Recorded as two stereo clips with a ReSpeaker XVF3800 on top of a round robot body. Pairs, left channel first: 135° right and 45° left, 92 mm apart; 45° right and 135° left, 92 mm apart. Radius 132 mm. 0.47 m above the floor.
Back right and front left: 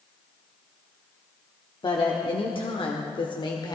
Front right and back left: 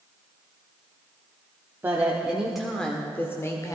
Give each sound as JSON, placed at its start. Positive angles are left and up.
{"t": 1.8, "sound": "a woman speaking", "azimuth_deg": -160, "distance_m": 1.5}